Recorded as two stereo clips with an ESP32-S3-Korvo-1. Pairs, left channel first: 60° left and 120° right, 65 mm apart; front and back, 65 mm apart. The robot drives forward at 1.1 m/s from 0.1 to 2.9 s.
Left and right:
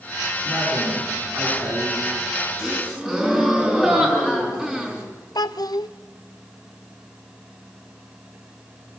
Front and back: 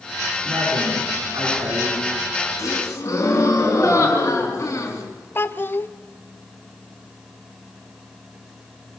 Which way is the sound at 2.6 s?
40° right.